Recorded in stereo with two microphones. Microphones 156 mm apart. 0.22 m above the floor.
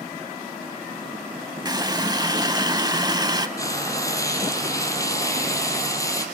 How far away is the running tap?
About 0.7 m.